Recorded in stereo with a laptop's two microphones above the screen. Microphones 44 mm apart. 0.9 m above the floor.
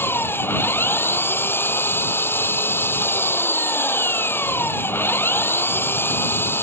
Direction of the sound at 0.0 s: 55° left (ahead or behind).